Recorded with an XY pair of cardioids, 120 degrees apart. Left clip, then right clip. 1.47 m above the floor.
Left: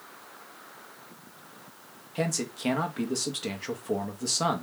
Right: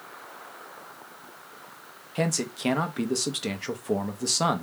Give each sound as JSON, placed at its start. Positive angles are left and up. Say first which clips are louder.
{"t": 2.1, "sound": "a man speaking", "louder": "right 2 dB", "azimuth_deg": -15, "distance_m": 0.8}